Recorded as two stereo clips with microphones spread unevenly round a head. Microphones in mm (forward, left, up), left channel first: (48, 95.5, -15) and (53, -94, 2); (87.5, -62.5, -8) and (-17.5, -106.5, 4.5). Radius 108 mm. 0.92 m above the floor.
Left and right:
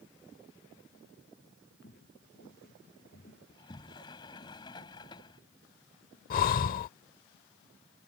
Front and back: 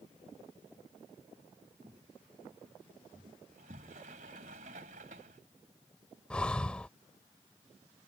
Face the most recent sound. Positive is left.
turn(degrees=110)